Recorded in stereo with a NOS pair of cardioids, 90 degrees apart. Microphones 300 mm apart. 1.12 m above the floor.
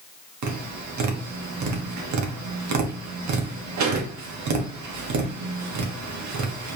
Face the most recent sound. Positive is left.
turn(degrees=-65)